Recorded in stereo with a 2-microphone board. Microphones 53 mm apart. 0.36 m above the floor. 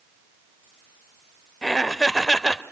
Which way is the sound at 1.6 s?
10° left (ahead or behind).